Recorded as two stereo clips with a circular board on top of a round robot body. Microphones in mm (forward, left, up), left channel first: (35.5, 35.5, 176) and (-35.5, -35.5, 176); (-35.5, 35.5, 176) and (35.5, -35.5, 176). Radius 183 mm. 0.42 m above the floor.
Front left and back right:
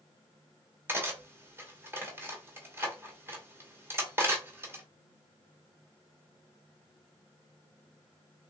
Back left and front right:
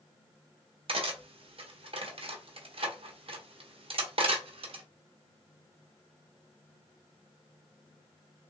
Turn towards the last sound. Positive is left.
turn(degrees=-65)